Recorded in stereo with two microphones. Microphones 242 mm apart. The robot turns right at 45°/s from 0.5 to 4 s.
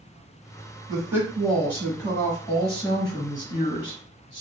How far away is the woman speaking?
About 1.3 m.